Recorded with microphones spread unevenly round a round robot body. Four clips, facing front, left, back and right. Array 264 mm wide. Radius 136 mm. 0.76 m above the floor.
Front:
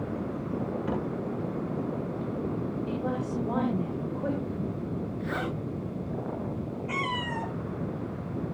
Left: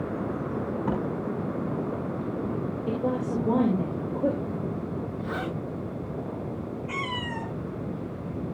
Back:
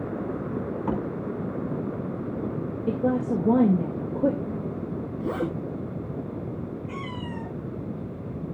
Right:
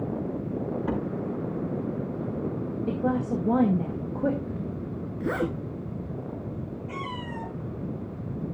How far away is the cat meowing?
About 8.5 m.